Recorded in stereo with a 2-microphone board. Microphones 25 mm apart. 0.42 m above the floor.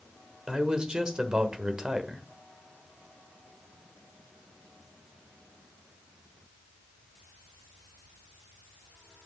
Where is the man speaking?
40° right (ahead or behind), 1.3 m.